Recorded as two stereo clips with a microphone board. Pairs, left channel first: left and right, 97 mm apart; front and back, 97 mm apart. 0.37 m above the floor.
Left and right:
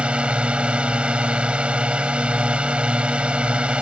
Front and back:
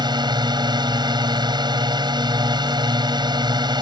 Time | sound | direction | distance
0.0 | a drone | 165° right | ?